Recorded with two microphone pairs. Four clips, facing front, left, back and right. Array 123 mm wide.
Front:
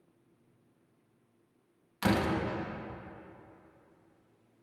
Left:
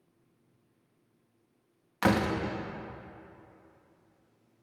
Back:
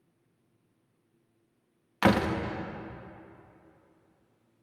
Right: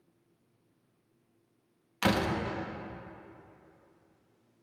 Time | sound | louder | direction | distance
2.0 | a door slam | left 2 dB, back 5 dB | 165° left | 1.3 m